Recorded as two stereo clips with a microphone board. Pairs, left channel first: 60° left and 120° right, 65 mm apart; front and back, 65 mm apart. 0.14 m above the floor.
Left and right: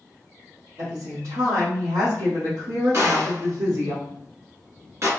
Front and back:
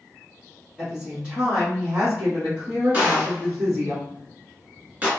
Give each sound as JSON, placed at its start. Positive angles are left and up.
{"t": 0.8, "sound": "a woman speaking", "azimuth_deg": -110, "distance_m": 1.9}
{"t": 2.9, "sound": "a gunshot", "azimuth_deg": -120, "distance_m": 1.4}